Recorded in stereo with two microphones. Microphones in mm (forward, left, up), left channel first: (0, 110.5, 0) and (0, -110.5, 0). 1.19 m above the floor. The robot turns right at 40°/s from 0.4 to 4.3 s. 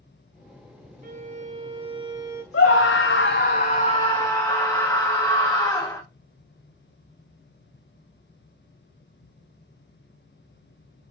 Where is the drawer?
I don't hear a drawer.